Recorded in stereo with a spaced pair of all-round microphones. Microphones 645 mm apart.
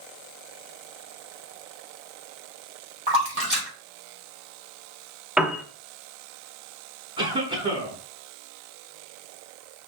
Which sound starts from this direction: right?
A splash, at 3.1 s.